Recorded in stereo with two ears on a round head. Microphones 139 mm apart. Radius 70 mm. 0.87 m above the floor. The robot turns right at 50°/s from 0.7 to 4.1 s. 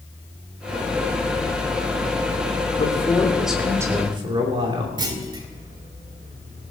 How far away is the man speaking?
About 3 m.